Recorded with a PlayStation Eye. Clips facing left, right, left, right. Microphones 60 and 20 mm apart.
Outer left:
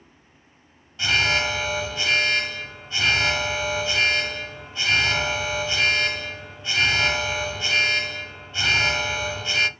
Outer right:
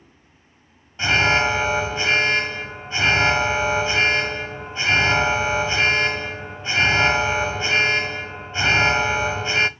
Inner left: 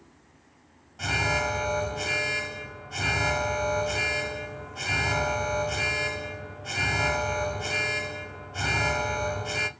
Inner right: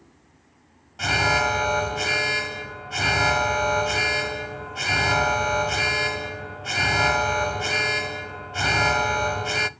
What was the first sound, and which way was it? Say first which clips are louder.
An alarm: outer right 4 dB, inner right 5 dB; 30° right (ahead or behind).